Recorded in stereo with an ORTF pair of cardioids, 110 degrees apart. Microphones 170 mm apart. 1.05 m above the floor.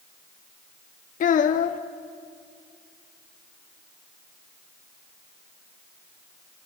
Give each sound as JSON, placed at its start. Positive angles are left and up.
{"t": 1.2, "sound": "a child speaking", "azimuth_deg": 50, "distance_m": 1.0}